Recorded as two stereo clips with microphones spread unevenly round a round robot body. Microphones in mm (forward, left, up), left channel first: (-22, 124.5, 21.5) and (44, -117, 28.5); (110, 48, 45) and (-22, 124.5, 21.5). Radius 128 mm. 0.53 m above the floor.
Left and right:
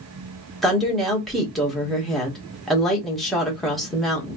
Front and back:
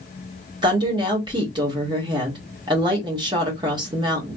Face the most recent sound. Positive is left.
turn(degrees=-165)